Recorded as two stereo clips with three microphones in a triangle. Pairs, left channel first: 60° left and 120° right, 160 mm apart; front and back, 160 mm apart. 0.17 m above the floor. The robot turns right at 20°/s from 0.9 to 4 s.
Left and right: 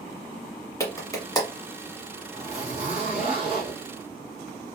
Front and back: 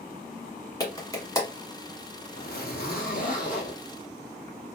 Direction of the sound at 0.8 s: 20° left.